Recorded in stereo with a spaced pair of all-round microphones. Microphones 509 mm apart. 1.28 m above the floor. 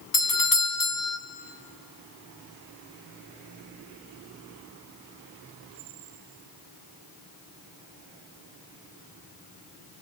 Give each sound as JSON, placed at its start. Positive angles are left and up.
{"t": 0.1, "sound": "a doorbell", "side_deg": 40, "distance_m": 1.4}